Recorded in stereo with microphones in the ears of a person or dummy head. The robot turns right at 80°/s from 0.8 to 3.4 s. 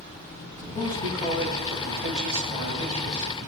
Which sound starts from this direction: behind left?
A man speaking, at 0.6 s.